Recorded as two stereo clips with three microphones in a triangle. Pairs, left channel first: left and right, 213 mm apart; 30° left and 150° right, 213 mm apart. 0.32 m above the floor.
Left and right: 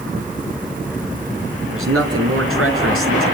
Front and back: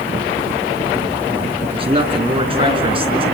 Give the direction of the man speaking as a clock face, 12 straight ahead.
3 o'clock.